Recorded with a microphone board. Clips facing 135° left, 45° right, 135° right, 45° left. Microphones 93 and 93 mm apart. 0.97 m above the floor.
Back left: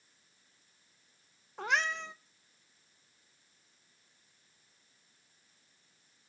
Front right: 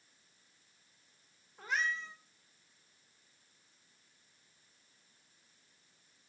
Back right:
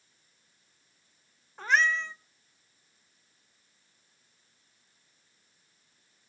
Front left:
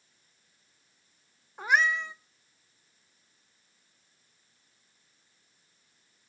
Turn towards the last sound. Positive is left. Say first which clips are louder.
# back left 4 dB, even
turn(degrees=120)